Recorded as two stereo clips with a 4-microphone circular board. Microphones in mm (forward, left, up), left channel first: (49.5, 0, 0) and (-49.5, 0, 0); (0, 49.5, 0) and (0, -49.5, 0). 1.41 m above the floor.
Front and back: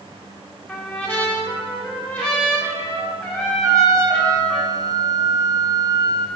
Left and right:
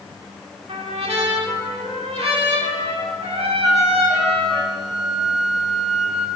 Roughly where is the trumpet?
Right.